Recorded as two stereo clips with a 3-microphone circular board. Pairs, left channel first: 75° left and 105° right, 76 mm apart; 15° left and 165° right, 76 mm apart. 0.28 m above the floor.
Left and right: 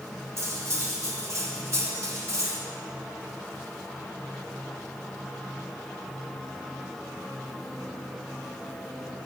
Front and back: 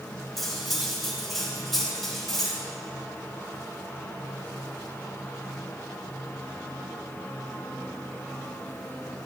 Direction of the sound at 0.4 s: 70° right.